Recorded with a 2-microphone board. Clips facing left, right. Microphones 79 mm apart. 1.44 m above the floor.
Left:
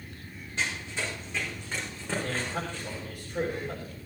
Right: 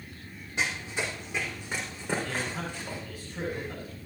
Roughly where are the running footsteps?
Centre.